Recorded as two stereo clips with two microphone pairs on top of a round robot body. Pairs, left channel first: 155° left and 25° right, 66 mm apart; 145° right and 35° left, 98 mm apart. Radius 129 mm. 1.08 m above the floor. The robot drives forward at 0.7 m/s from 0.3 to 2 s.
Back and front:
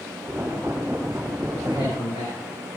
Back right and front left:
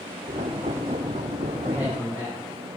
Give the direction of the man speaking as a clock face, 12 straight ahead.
7 o'clock.